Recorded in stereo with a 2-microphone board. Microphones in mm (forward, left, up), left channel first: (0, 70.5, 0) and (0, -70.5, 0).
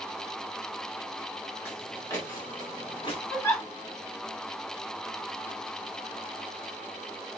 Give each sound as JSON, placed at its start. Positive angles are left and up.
{"t": 1.6, "sound": "footsteps", "side_deg": 10, "distance_m": 4.5}
{"t": 3.3, "sound": "a giggle", "side_deg": 20, "distance_m": 5.5}